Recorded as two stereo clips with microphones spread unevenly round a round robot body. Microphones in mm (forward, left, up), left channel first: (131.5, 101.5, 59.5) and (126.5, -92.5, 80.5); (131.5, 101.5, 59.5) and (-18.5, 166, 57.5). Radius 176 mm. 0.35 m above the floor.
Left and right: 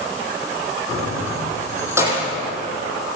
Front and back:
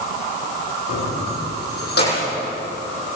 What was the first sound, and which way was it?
Keys jangling, 15° right.